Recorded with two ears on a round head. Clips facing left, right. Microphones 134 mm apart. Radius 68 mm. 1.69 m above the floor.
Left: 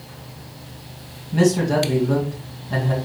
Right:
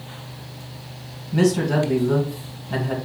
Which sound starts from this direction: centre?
A man speaking, at 1.3 s.